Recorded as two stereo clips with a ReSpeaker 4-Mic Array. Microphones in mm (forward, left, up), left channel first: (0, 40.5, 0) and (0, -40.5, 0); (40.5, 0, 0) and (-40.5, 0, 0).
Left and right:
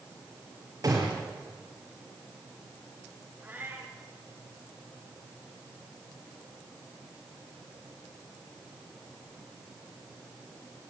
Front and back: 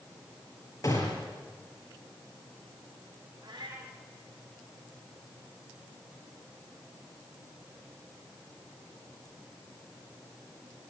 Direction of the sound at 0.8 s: 45° right.